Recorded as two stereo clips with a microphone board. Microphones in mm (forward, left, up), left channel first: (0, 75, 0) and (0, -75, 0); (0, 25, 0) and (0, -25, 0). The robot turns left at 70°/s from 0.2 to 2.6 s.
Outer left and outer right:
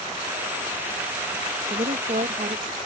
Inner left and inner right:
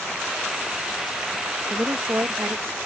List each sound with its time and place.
1.7 s a woman speaking: 45° right; by 2.8 s 110° right